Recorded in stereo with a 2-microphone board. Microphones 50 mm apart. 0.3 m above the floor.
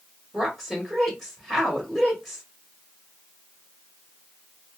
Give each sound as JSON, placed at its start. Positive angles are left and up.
{"t": 0.3, "sound": "a woman speaking", "side_deg": 0, "distance_m": 1.3}